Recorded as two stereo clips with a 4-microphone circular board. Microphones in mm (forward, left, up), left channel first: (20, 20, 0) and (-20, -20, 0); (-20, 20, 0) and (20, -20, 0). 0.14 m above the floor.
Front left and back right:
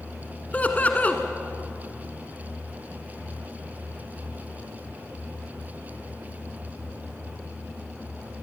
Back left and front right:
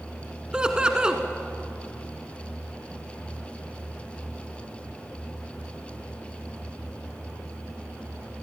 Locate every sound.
0.5 s laughter: 15° left, 1.4 m